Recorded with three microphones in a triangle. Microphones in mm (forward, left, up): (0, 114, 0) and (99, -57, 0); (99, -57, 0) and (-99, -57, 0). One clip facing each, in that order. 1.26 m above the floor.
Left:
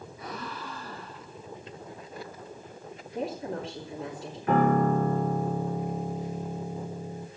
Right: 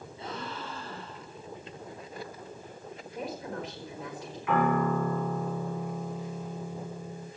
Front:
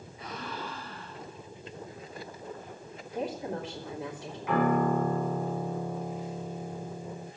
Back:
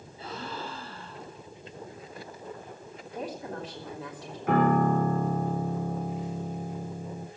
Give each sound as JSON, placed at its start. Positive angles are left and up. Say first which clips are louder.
{"t": 0.2, "sound": "a gasp", "louder": "right 1 dB, back 1 dB", "azimuth_deg": -120, "distance_m": 4.5}
{"t": 3.1, "sound": "a woman speaking", "louder": "left 4 dB, front 3 dB", "azimuth_deg": 75, "distance_m": 3.0}
{"t": 4.5, "sound": "a piano", "louder": "left 3 dB, back 2 dB", "azimuth_deg": 160, "distance_m": 2.5}